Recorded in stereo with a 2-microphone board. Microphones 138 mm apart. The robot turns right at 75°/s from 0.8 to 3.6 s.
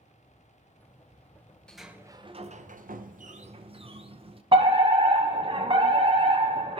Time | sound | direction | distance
1.7 | a sliding door | 175° left | 0.6 m
4.5 | a fire alarm | 40° right (ahead or behind) | 1.2 m